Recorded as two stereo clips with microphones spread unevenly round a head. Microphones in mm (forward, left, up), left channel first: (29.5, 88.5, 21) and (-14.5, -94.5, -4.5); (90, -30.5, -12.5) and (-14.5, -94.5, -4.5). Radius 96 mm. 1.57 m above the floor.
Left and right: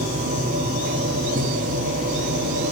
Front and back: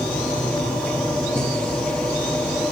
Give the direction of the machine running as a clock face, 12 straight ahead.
2 o'clock.